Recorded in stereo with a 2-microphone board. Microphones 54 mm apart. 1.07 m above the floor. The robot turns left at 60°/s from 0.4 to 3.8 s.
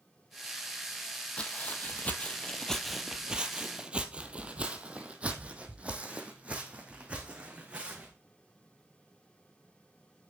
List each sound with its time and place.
1.4 s footsteps: 20° left (ahead or behind), 1.4 m; by 8.1 s 25° right (ahead or behind), 3 m